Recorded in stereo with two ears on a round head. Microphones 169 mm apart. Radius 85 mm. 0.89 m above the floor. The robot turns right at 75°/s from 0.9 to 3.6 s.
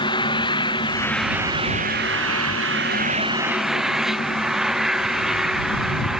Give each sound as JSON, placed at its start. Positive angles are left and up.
{"t": 0.0, "sound": "an engine running", "azimuth_deg": 155}